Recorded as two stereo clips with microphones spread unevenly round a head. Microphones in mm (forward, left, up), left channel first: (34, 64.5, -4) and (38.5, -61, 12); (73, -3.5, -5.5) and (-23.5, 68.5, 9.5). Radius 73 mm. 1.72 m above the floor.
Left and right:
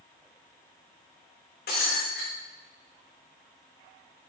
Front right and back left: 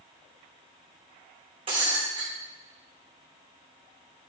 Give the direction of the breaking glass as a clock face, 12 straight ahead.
9 o'clock.